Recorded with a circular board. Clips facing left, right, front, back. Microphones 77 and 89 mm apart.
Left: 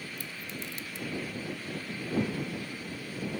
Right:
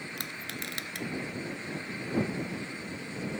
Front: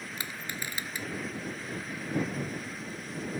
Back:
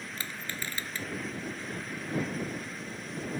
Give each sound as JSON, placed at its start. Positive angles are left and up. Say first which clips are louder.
{"t": 0.2, "sound": "crushing", "louder": "right 1 dB, even", "azimuth_deg": -75}
{"t": 2.3, "sound": "a whoosh", "louder": "even, even", "azimuth_deg": 10}